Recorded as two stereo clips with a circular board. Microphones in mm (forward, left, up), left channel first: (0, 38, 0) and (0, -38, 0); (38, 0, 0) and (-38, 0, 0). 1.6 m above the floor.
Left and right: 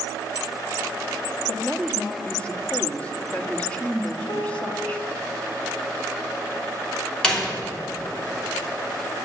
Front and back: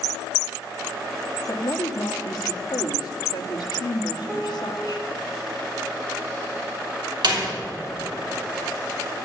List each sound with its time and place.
1.5 s a woman speaking: 20° left, 1.0 m
4.3 s a piano: 100° left, 1.9 m
7.2 s a door slam: 170° left, 2.5 m